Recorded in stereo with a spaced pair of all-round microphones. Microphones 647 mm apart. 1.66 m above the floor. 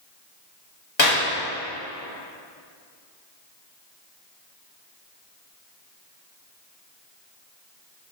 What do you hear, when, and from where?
1.0 s a clap: 45° left (ahead or behind), 2.5 m